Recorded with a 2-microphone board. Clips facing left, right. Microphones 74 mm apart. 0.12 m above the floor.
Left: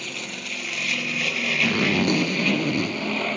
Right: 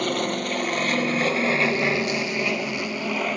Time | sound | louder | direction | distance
0.0 | an aircraft | right 10 dB | 55° right (ahead or behind) | ?
1.6 | a zipper | left 1 dB | 55° left (ahead or behind) | ?